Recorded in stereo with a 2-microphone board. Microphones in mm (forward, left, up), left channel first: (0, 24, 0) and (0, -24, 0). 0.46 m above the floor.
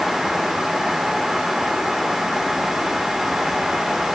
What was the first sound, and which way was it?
Only background noise.